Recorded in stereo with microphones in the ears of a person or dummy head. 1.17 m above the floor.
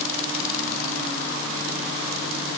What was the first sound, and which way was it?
Only background noise.